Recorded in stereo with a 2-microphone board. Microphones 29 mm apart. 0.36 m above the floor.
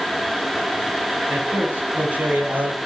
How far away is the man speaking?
About 8 m.